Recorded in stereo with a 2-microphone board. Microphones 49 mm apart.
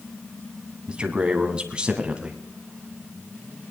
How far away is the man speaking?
About 1.7 m.